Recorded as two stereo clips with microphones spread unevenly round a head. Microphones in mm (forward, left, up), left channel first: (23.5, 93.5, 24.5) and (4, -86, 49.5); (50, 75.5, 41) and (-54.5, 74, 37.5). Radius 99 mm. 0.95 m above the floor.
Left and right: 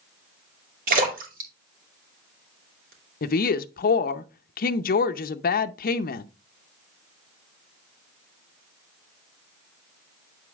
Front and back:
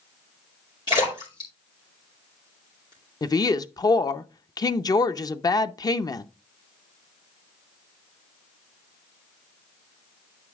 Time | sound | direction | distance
0.9 | a splash | 55° right | 3 m
3.2 | a woman speaking | 55° left | 0.6 m